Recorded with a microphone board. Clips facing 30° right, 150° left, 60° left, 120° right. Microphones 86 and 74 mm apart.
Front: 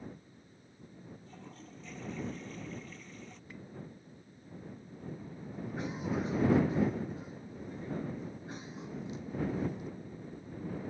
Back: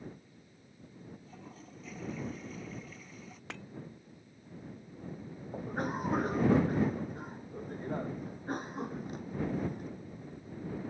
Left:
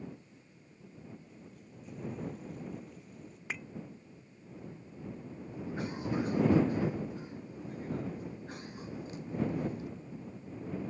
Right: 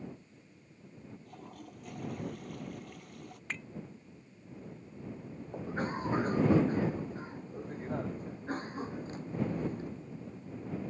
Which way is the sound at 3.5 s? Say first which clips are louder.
Back 5 dB, left 1 dB; 140° left.